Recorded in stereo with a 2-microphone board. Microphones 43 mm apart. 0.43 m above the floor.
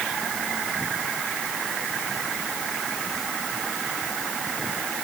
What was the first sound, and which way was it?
Only background noise.